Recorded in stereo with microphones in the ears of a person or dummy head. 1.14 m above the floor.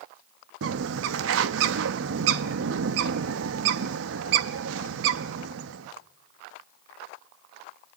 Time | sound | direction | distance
0.6 | a bird | 75° right (ahead or behind) | 0.9 m